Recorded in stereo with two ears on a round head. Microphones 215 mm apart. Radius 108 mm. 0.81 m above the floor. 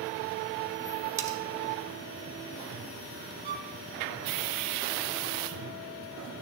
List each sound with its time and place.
1.2 s cutlery clinking: 15° right (ahead or behind), 0.9 m
3.4 s a violin: 40° right (ahead or behind), 2.5 m